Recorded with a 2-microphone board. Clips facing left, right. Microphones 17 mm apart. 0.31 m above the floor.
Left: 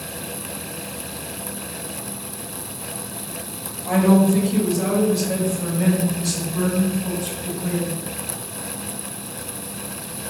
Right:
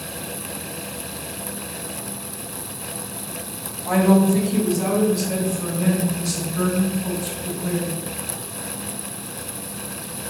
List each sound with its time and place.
3.9 s a woman speaking: 20° left (ahead or behind), 1.3 m; by 7.9 s 60° left (ahead or behind), 3 m